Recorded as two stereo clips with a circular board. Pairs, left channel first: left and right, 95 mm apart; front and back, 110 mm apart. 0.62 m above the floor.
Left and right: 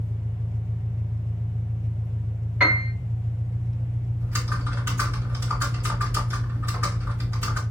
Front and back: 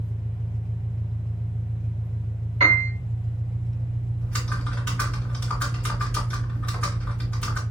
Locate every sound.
0.0 s an engine running: 130° right, 1.6 m
2.6 s a piano: 165° right, 2.5 m
4.2 s typing on a keyboard: 65° right, 1.3 m